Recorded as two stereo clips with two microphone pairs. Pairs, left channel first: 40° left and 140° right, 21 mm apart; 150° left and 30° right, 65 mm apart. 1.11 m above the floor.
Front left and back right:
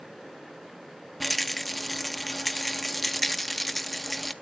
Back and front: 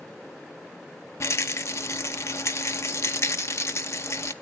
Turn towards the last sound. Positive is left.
turn(degrees=120)